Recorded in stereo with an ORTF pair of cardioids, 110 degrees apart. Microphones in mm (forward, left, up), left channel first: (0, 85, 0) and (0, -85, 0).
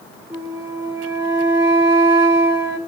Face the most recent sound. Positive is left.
turn(degrees=-20)